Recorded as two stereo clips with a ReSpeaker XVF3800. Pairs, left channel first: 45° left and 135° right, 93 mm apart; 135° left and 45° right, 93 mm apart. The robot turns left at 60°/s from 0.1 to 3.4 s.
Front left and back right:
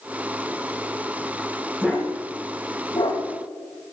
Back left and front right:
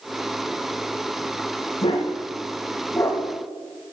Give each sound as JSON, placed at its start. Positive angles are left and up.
{"t": 1.8, "sound": "a dog barking", "azimuth_deg": 150, "distance_m": 5.5}